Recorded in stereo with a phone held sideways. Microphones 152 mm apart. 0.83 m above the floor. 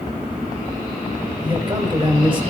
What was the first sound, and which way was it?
A man speaking, 30° right (ahead or behind).